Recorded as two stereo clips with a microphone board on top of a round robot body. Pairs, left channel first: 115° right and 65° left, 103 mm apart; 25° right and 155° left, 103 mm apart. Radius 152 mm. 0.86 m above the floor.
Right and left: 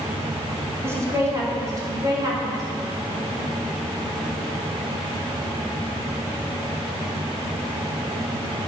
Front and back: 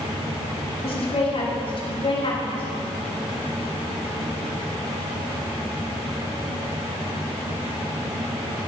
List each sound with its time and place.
0.8 s a woman speaking: straight ahead, 3 m; by 2.6 s 15° left, 4.5 m